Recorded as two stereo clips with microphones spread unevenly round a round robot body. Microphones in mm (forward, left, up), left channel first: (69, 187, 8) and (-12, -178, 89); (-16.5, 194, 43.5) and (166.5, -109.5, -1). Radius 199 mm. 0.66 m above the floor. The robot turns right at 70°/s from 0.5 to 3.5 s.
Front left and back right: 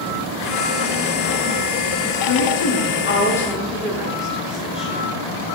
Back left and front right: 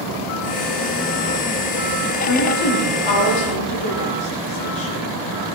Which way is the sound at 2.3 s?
75° left.